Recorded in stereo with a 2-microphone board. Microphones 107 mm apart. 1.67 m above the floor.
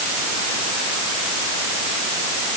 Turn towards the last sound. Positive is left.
No sound to turn to.